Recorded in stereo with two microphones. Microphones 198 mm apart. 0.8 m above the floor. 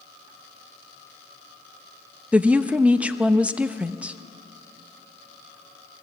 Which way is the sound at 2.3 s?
5° right (ahead or behind).